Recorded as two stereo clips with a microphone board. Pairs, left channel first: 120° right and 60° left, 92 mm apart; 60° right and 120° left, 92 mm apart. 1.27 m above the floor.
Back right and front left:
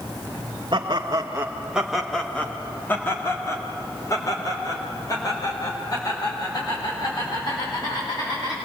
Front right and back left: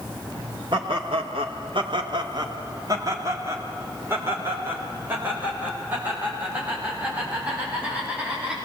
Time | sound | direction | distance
0.7 | laughter | 95° left | 1.8 m